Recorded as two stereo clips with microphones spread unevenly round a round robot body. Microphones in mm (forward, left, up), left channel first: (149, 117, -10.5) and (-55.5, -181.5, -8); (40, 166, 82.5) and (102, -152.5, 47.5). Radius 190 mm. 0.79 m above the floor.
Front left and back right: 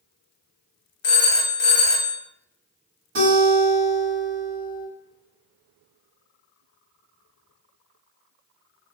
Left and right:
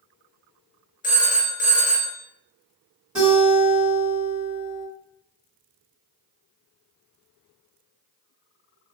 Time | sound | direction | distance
1.0 | a phone ringing | 30° left | 0.7 m
3.1 | a guitar | 165° right | 2.0 m